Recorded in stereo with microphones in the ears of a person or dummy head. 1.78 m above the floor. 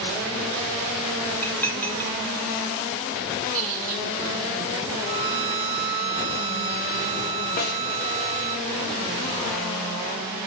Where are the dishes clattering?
5° left (ahead or behind), 1.1 m.